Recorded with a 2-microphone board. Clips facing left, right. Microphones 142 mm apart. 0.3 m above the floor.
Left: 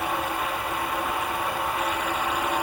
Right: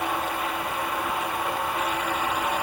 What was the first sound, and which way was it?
Only background noise.